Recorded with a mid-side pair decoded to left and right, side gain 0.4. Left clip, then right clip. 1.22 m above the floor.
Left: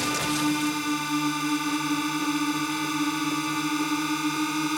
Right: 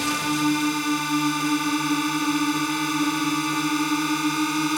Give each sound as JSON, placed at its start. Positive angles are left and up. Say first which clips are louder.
{"t": 0.0, "sound": "a drone", "louder": "right 2 dB", "azimuth_deg": -25}